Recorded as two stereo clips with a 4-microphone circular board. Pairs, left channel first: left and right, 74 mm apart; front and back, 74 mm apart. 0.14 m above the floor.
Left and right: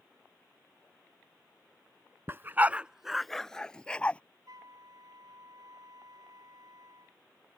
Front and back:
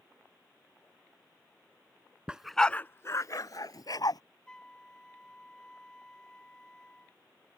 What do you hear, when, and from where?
2.3 s a dog barking: 115° right; by 4.2 s 15° left
4.5 s a flute: 80° right